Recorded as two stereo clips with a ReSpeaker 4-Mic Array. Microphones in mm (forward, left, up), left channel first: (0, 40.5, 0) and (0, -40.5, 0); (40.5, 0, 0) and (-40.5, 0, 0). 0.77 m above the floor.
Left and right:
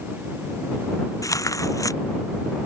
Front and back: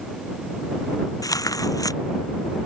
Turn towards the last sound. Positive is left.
turn(degrees=45)